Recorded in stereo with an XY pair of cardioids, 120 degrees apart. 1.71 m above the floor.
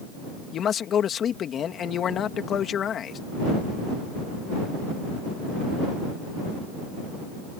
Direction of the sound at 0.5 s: 50° left.